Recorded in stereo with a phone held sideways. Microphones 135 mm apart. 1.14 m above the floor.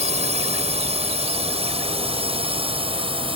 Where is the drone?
60° right (ahead or behind); by 3.4 s 45° right (ahead or behind).